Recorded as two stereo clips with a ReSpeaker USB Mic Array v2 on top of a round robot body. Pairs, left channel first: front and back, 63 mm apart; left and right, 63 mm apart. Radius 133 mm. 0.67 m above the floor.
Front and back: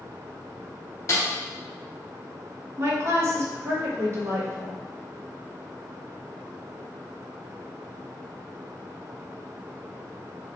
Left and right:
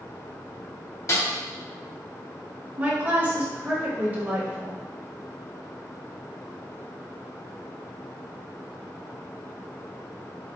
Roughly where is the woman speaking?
Behind right.